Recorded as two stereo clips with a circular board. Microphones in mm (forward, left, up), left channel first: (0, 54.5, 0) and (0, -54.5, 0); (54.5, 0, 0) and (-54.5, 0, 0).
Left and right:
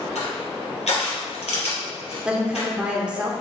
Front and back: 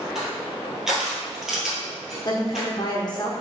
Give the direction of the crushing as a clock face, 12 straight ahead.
9 o'clock.